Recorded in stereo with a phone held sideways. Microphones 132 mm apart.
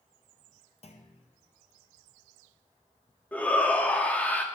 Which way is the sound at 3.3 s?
10° left (ahead or behind).